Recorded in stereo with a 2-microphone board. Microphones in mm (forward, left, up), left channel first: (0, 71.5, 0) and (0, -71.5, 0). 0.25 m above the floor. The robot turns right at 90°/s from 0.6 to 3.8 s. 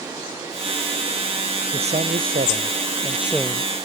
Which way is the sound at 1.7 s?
145° right.